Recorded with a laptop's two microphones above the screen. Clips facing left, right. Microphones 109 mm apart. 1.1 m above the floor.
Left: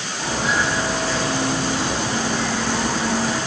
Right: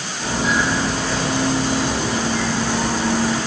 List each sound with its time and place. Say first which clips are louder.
0.2 s footsteps: right 2 dB; 30° left (ahead or behind), 1.8 m; by 3.4 s 10° left (ahead or behind), 1.4 m